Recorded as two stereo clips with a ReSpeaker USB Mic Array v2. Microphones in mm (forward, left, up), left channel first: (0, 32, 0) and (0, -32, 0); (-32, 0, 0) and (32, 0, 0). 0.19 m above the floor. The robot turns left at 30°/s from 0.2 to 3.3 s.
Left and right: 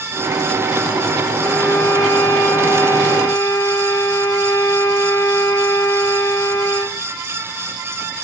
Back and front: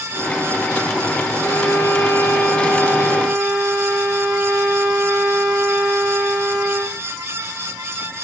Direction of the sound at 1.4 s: 130° left.